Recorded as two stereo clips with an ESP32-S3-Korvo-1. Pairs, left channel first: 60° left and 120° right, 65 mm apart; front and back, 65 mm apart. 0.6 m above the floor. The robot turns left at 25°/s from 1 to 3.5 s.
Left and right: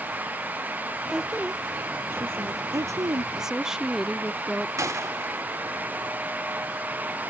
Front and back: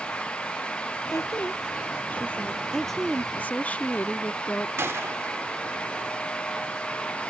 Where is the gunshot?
140° right.